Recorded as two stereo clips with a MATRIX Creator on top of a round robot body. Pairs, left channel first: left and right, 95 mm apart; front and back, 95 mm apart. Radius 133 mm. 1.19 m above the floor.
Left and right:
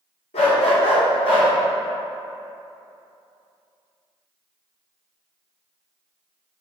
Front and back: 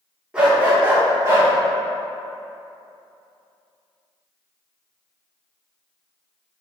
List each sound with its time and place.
0.3 s a dog barking: 100° left, 1.4 m; by 1.5 s 120° left, 1.7 m